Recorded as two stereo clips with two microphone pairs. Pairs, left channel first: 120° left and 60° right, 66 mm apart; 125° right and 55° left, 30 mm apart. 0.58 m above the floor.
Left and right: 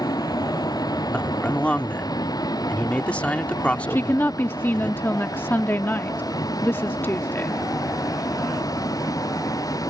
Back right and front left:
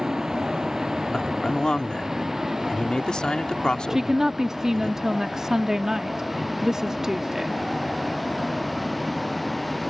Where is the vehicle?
125° left; by 9.9 s 145° left.